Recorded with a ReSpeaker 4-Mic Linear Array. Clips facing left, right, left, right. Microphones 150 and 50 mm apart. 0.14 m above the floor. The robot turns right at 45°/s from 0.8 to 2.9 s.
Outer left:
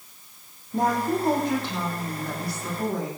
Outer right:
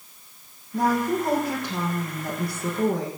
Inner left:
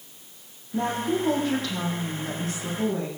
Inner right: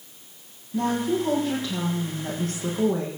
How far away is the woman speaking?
About 7 m.